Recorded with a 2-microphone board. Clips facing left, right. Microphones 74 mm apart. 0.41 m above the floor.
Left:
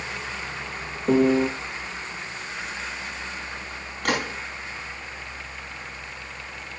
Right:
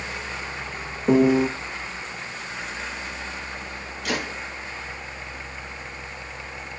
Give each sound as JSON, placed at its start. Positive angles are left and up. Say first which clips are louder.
{"t": 1.1, "sound": "a piano", "louder": "right 2 dB", "side_deg": -10, "distance_m": 0.5}
{"t": 4.0, "sound": "a gunshot", "louder": "left 3 dB", "side_deg": 50, "distance_m": 3.0}